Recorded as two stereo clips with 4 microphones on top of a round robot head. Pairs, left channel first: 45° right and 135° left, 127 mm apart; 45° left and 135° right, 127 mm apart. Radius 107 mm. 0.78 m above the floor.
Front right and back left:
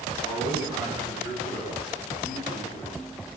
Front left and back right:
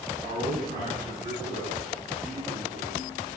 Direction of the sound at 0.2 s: 110° right.